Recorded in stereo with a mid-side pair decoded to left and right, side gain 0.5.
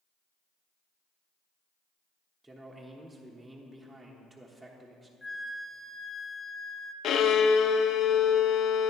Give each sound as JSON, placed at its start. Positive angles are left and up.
{"t": 2.4, "sound": "a man speaking", "azimuth_deg": -10, "distance_m": 1.1}
{"t": 5.2, "sound": "a flute", "azimuth_deg": 10, "distance_m": 0.6}
{"t": 7.0, "sound": "a violin", "azimuth_deg": 60, "distance_m": 0.5}